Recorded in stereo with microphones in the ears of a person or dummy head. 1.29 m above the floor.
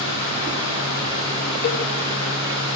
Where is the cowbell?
55° left (ahead or behind), 1.5 m.